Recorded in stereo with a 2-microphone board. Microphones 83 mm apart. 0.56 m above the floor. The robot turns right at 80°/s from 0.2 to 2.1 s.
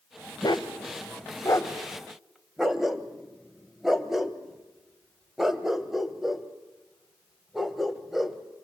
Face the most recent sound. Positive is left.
turn(degrees=-5)  # may be behind; listen again after turning